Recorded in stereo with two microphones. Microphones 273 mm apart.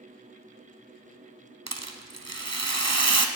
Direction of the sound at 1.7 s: 70° right (ahead or behind).